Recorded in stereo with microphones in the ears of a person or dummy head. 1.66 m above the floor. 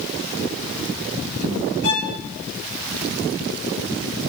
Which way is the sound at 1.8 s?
60° left (ahead or behind).